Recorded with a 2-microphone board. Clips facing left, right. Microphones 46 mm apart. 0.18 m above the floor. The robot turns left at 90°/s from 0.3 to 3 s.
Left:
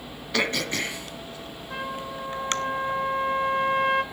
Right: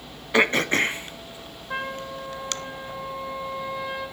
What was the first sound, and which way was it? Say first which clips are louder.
Throat clearing: right 6 dB; 30° right (ahead or behind).